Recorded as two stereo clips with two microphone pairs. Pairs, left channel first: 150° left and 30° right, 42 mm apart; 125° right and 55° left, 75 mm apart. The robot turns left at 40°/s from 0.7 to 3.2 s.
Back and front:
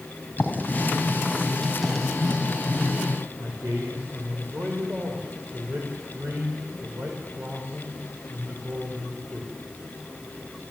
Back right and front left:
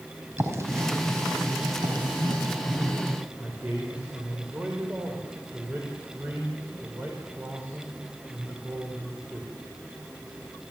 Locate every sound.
0.4 s writing: 105° left, 4 m; by 3.0 s 15° left, 4 m
3.4 s a man speaking: 10° right, 4.5 m